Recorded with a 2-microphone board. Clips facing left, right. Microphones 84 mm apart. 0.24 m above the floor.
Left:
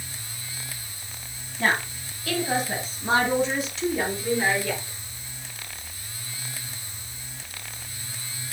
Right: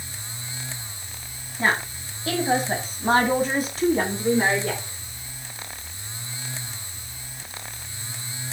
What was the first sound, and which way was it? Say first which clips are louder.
A woman speaking: right 1 dB; 10° right (ahead or behind).